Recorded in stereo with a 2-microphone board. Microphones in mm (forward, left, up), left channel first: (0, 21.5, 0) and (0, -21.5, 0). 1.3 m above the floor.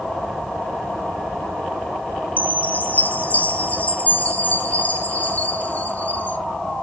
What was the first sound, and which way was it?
A chime, 35° left (ahead or behind).